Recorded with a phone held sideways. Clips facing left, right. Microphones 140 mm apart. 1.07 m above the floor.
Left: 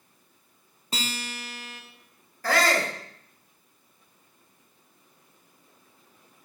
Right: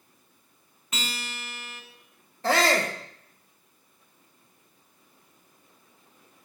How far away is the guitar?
About 1.1 m.